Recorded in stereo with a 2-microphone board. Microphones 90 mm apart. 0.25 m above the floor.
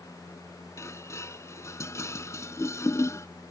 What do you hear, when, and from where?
0.8 s dishes clattering: 35° left (ahead or behind)